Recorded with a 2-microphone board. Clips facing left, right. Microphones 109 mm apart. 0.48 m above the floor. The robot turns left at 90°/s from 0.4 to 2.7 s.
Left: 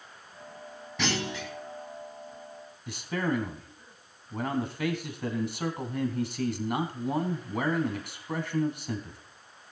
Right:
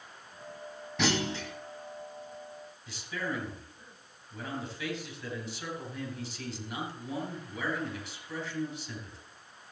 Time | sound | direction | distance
1.0 | a clunk | straight ahead | 3 m
2.9 | a man speaking | 55° left (ahead or behind) | 2.5 m